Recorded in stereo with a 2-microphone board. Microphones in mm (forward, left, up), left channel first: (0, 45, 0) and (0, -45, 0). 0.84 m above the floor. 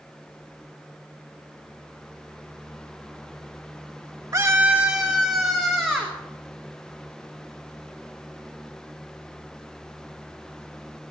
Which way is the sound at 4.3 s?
35° right (ahead or behind).